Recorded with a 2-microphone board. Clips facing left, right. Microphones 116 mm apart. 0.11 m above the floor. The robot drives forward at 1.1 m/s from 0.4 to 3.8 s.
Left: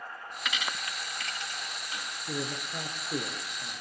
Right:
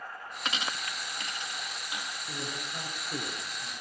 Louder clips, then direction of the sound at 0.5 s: Right 1 dB; 30° right (ahead or behind).